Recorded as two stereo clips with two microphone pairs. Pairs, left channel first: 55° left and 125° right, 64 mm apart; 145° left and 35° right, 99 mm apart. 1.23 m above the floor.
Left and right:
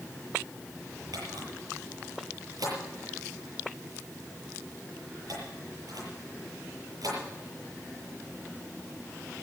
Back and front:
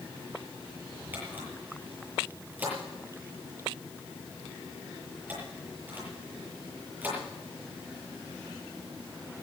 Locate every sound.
1.1 s a camera shutter: 105° right, 8 m